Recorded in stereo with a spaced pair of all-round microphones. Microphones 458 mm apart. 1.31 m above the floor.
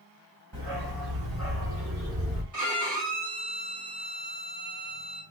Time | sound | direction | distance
0.5 | a dog barking | 60° right (ahead or behind) | 1.6 m
2.5 | a violin | 40° right (ahead or behind) | 1.1 m